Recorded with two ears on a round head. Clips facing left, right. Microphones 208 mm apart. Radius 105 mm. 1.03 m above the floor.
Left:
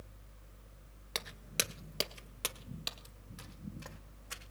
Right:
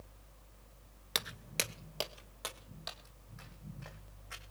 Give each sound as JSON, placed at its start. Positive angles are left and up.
{"t": 1.1, "sound": "footsteps", "side_deg": -15, "distance_m": 1.0}